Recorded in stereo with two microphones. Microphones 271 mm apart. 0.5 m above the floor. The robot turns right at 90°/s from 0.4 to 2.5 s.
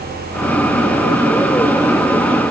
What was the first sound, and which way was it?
Only background noise.